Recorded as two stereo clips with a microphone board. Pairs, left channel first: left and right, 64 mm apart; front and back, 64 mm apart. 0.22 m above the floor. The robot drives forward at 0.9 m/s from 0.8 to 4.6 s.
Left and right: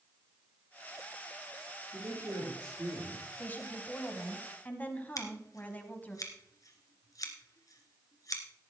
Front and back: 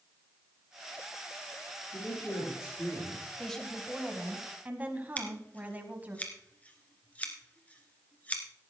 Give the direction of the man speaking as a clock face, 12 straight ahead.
1 o'clock.